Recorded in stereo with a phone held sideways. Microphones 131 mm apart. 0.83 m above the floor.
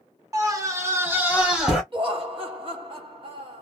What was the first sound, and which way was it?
A scream, 25° right (ahead or behind).